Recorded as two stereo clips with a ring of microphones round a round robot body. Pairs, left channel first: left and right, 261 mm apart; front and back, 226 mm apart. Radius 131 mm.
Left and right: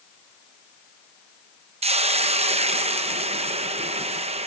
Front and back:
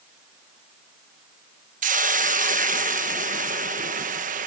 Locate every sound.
1.8 s a hiss: 145° right, 1.0 m